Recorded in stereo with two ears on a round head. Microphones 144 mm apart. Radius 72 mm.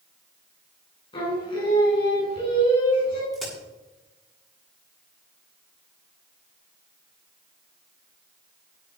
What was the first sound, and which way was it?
Singing, 30° left (ahead or behind).